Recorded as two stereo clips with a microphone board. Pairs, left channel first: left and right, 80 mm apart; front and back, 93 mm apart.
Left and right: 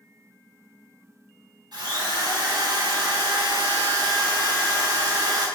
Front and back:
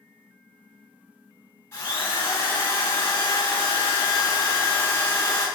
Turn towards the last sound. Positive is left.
turn(degrees=-60)